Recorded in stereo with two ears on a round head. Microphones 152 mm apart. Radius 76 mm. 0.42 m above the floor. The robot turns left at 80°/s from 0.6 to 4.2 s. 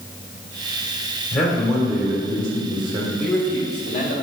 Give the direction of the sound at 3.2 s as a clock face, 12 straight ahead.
6 o'clock.